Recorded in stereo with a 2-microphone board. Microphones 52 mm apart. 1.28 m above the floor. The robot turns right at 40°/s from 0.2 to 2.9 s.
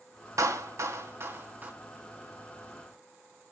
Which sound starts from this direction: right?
A clap, at 0.4 s.